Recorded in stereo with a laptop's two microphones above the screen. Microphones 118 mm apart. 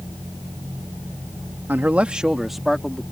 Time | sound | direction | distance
1.7 | a man speaking | 20° right (ahead or behind) | ?